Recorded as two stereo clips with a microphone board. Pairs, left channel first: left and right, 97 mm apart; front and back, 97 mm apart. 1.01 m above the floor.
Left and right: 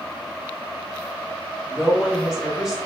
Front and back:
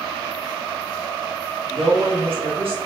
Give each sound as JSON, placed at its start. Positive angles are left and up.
{"t": 1.7, "sound": "a woman speaking", "azimuth_deg": -175, "distance_m": 1.2}